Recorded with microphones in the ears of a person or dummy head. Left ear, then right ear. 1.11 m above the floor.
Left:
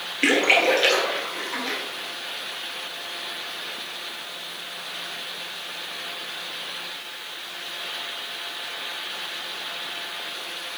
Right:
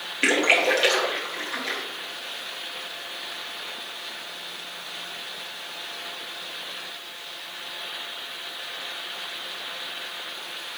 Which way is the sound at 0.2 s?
15° right (ahead or behind).